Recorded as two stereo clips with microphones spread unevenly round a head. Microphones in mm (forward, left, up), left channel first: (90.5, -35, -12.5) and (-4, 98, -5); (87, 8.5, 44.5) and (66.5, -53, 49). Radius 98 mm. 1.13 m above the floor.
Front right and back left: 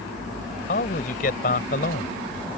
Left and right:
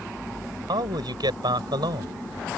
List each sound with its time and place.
0.7 s a man speaking: 105° right